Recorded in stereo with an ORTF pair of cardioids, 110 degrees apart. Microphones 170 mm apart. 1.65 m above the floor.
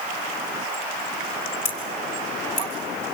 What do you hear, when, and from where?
1.6 s scissors: 45° left, 6 m